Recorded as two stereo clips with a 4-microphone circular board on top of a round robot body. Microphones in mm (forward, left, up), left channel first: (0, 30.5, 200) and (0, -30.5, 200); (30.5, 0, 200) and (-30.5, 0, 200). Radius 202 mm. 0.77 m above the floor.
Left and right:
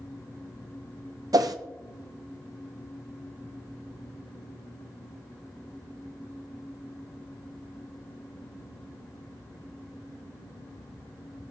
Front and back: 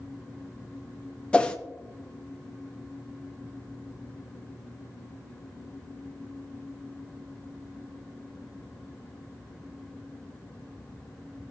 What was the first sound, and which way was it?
A whoosh, 75° right.